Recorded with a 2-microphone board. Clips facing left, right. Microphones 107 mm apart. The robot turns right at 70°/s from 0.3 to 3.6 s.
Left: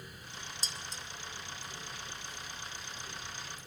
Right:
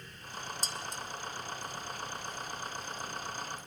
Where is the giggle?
I don't hear a giggle.